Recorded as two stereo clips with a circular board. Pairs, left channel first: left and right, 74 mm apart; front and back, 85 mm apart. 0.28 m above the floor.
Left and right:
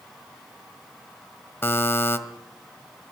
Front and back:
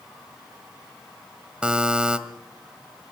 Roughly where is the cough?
No cough in this recording.